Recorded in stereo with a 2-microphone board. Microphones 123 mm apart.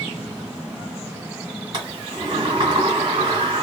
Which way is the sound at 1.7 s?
35° right (ahead or behind).